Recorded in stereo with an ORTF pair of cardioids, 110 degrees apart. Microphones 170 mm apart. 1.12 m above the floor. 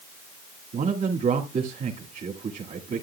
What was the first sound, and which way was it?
A man speaking, 50° right.